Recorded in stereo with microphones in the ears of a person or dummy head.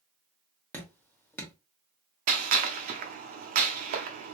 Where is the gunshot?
40° right (ahead or behind), 0.6 m.